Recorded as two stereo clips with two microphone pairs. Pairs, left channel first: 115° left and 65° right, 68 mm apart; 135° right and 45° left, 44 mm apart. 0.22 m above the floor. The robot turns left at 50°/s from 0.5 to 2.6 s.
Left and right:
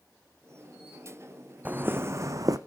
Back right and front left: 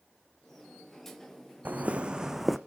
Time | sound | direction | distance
1.6 | footsteps | straight ahead | 0.7 m